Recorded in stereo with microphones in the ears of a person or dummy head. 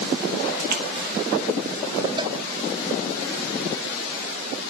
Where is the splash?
45° right (ahead or behind), 2 m.